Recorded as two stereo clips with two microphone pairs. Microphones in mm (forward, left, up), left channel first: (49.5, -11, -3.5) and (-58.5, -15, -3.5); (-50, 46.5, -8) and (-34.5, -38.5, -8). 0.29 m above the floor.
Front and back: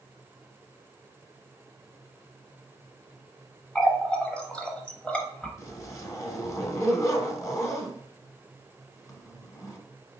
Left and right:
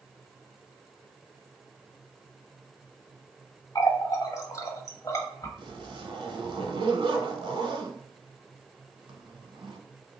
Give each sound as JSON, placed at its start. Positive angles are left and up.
{"t": 3.8, "sound": "a running tap", "azimuth_deg": 80, "distance_m": 0.7}
{"t": 5.6, "sound": "a zipper", "azimuth_deg": -60, "distance_m": 0.7}